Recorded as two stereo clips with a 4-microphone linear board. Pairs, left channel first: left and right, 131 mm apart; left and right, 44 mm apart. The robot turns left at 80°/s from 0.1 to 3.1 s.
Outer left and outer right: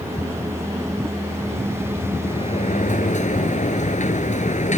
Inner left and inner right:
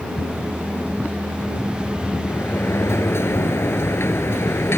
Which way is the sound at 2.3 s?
140° left.